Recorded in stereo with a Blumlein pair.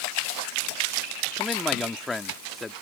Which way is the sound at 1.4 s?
10° left.